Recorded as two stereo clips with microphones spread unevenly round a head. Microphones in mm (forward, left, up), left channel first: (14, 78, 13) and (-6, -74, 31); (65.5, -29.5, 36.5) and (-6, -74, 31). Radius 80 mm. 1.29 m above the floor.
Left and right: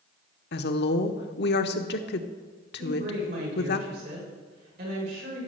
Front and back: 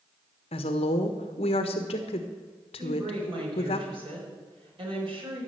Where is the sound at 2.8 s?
130° right, 5 m.